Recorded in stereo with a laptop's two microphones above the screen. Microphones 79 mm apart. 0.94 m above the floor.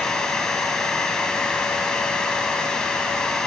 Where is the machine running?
10° left (ahead or behind), 2.5 m.